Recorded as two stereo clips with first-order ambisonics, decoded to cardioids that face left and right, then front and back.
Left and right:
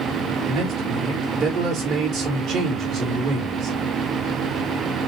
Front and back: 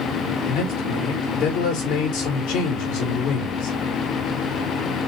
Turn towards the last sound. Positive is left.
turn(degrees=-30)